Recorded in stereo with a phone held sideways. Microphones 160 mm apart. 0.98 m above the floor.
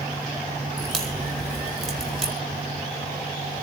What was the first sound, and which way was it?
A crack, 5° left (ahead or behind).